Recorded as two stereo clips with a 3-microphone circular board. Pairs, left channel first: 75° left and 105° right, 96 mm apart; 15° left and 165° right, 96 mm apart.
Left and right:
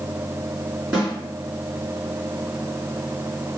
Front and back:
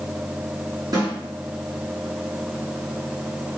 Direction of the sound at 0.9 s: Straight behind.